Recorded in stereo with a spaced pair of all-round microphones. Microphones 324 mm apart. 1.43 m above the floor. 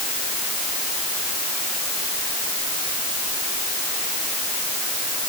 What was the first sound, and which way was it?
Only background noise.